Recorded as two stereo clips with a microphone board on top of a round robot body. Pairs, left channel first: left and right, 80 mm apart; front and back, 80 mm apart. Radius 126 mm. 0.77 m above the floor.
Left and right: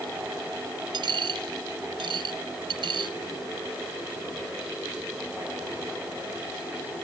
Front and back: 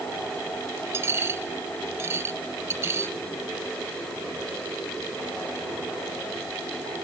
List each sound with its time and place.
0.9 s a dropped coin: 120° right